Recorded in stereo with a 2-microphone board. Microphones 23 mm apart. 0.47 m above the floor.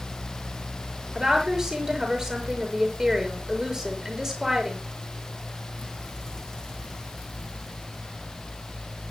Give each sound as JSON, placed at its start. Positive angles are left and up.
{"t": 1.1, "sound": "a woman speaking", "side_deg": -30, "distance_m": 6.5}